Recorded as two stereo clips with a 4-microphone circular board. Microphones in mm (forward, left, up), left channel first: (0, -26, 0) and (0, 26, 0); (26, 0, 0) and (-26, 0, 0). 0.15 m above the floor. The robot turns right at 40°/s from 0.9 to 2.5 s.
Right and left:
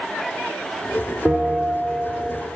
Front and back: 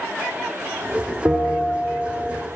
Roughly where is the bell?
Behind.